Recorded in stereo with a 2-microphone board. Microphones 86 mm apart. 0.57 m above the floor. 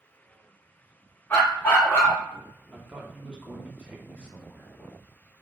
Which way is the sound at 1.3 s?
25° left (ahead or behind).